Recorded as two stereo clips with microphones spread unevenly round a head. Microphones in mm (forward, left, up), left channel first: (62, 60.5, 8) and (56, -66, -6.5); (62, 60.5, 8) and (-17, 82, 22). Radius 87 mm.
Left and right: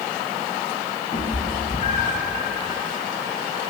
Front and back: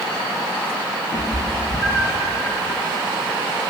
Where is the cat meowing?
35° left, 2.5 m; by 2.3 s 90° left, 2 m.